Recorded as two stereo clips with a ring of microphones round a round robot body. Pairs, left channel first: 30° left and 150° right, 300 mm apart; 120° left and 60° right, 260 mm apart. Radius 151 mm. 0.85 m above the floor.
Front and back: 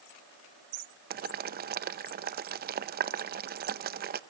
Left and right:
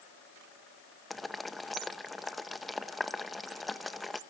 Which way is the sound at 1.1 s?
150° right.